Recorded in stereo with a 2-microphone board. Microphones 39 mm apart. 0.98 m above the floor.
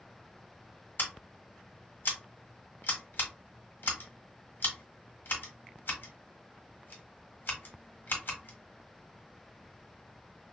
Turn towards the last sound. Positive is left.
turn(degrees=60)  # may be behind; listen again after turning